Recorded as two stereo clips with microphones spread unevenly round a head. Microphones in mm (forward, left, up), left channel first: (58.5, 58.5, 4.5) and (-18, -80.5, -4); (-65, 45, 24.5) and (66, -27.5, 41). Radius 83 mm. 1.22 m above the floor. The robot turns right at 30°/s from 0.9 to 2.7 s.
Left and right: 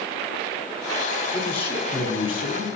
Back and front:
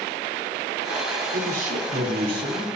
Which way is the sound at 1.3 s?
5° right.